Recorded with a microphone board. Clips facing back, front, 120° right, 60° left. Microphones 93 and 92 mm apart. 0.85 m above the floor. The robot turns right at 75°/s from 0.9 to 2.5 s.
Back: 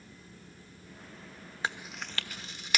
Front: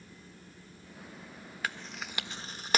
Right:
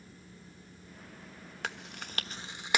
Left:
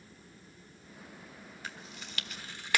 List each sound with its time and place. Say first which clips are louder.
1.6 s chewing: back 2 dB, right 6 dB; 115° right, 1.2 m; by 2.8 s 50° right, 1.2 m